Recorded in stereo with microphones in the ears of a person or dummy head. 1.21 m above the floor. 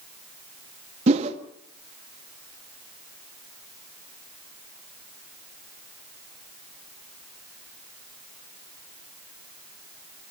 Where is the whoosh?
35° right (ahead or behind), 1.6 m.